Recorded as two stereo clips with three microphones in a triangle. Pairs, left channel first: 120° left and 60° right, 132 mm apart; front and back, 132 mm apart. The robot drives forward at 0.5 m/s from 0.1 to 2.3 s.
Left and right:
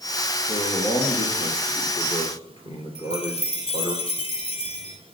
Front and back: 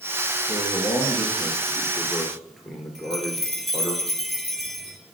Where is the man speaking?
70° left, 2.5 m; by 4.0 s 90° left, 2.5 m.